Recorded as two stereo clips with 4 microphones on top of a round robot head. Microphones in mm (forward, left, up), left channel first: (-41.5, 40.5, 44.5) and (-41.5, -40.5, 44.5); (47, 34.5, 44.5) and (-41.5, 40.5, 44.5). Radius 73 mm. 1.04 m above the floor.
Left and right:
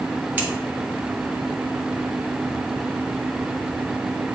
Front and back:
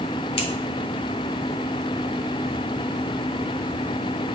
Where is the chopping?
No chopping in this recording.